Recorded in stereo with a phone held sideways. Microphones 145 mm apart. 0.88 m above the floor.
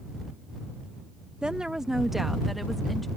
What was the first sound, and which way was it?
A woman speaking, 5° right (ahead or behind).